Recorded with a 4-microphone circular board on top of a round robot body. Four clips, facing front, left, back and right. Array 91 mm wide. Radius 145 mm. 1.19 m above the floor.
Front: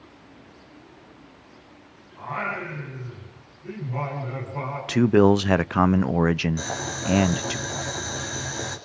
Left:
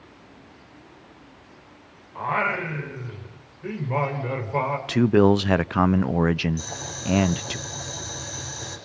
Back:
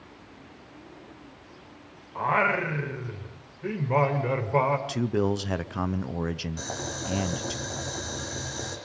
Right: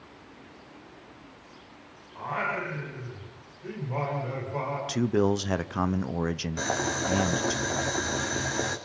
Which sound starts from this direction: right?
Boiling, at 6.6 s.